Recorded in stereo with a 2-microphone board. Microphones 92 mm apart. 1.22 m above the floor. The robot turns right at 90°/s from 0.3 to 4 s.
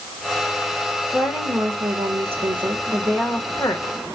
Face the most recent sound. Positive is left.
turn(degrees=65)